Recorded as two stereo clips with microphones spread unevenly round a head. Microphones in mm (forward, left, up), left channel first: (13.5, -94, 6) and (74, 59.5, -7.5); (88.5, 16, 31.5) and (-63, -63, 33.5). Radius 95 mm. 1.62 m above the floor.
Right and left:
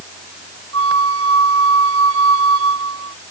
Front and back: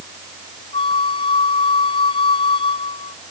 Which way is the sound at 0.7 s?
90° left.